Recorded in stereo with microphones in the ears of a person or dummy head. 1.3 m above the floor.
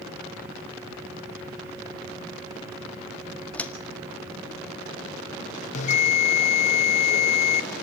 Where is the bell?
40° left (ahead or behind), 0.9 m.